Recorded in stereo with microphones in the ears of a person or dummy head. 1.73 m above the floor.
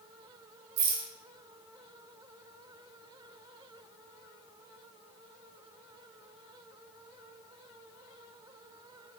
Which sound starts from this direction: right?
A rattle, at 0.8 s.